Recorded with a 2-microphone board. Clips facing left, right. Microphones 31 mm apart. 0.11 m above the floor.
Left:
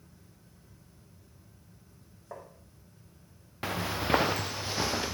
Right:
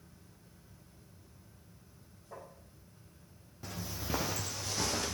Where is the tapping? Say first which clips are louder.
Left 4 dB; 65° left (ahead or behind), 4.5 m.